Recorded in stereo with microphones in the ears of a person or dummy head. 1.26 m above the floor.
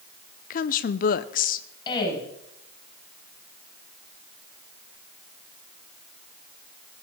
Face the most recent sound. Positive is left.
turn(degrees=25)  # may be behind; listen again after turning